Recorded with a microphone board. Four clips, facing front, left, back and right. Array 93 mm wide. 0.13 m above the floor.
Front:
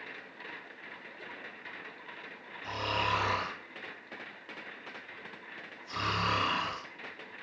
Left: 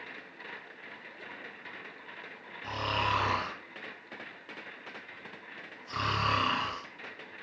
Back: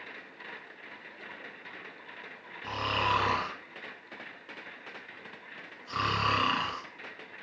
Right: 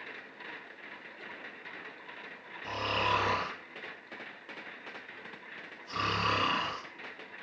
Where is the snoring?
170° left, 1.9 m.